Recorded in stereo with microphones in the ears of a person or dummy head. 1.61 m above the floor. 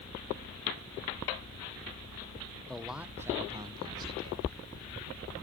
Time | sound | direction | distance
2.7 | a man speaking | 5° left (ahead or behind) | 0.8 m